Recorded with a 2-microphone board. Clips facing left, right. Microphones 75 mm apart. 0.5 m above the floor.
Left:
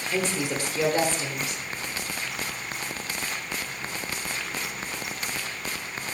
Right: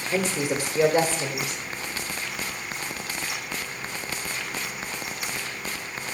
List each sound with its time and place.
0.1 s a woman speaking: 15° right (ahead or behind), 1.2 m